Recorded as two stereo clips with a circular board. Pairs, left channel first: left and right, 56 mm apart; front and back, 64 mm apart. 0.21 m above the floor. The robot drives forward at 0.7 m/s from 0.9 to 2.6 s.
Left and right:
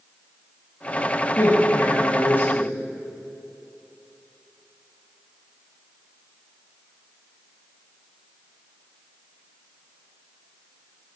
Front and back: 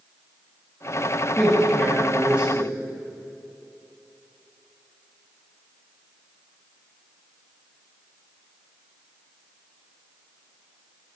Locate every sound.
1.4 s a man speaking: 75° left, 1.6 m; by 2.7 s 120° left, 1.7 m